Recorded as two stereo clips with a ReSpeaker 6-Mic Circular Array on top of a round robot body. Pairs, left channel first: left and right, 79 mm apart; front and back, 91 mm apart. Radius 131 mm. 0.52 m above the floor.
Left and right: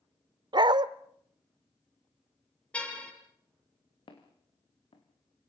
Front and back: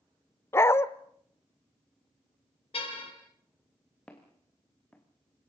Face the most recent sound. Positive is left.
turn(degrees=75)